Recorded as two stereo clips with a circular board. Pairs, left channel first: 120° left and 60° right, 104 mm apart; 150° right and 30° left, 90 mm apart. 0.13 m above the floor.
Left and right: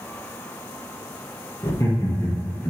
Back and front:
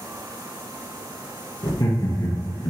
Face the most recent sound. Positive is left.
turn(degrees=-170)